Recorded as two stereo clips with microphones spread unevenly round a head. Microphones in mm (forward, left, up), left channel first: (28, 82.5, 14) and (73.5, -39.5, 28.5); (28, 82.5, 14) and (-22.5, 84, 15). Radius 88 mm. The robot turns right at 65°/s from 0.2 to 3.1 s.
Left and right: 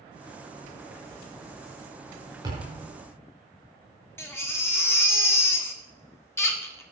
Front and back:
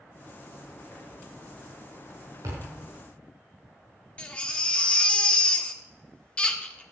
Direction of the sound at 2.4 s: 135° right.